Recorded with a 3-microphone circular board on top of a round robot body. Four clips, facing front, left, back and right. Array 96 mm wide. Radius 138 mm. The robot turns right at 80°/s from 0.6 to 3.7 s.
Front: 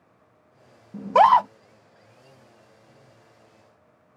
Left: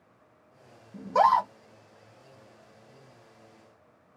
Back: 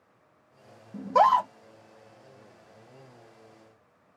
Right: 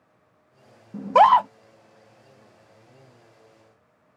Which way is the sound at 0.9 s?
75° right.